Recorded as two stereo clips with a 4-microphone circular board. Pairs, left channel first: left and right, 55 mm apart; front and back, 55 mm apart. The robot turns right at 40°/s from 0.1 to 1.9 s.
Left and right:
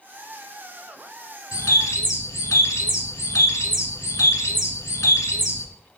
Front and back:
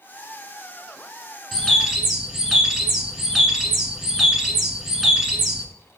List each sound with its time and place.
1.5 s a bird: 85° left, 1.2 m; by 5.7 s 105° left, 1.2 m